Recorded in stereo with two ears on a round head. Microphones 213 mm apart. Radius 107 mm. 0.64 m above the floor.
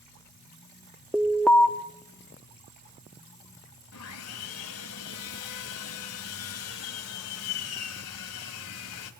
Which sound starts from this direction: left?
Sawing, at 3.9 s.